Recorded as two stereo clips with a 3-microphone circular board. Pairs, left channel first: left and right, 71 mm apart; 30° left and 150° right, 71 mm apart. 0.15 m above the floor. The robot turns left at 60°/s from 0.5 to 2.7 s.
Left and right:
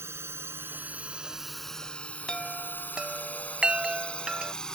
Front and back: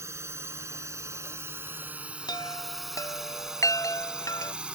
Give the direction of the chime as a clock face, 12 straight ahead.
12 o'clock.